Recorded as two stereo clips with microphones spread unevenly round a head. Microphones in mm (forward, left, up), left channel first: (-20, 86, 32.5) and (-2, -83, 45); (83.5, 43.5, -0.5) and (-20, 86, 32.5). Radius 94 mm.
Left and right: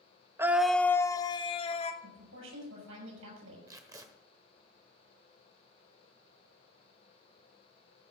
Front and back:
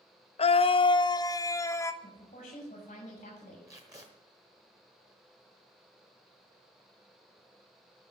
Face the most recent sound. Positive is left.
turn(degrees=-150)